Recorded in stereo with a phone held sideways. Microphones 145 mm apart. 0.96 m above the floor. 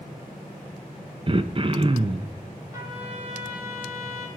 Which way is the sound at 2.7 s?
20° right (ahead or behind).